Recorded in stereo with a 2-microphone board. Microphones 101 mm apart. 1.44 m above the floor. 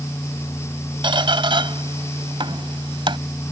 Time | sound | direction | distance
1.0 | a squeak | 60° right (ahead or behind) | ?